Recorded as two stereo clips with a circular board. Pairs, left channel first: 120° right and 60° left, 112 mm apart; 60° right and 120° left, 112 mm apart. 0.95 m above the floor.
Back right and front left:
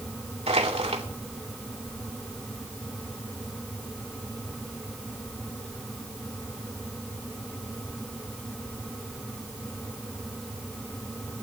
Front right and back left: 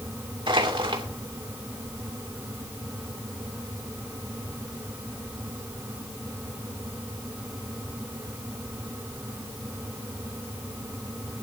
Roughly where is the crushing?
Left.